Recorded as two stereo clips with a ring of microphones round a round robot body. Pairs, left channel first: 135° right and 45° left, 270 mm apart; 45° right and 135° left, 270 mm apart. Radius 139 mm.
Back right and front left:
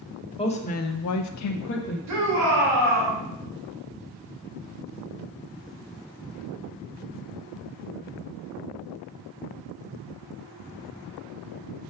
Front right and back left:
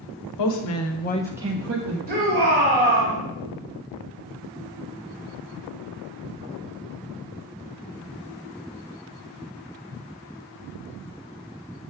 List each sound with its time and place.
0.4 s a woman speaking: 65° right, 1.3 m; by 2.0 s 165° left, 1.0 m
2.1 s a shout: 75° left, 2.5 m